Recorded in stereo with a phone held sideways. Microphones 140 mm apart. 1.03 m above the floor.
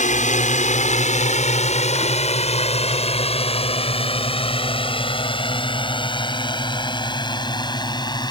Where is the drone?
65° left (ahead or behind); by 8.3 s 30° left (ahead or behind).